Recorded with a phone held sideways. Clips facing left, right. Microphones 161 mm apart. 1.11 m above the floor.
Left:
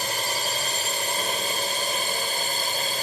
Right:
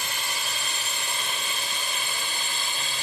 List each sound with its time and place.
0.0 s a drone: 40° left (ahead or behind)